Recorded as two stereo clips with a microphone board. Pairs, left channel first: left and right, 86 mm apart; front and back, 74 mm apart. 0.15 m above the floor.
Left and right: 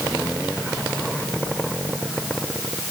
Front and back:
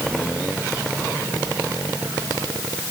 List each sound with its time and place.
Only background noise.